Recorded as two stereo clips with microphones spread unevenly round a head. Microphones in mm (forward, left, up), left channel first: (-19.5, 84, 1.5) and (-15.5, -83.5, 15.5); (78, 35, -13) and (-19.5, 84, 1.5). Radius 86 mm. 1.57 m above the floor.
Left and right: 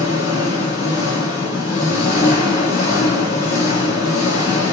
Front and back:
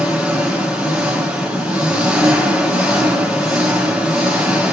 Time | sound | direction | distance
0.0 | an engine running | 70° left | 2 m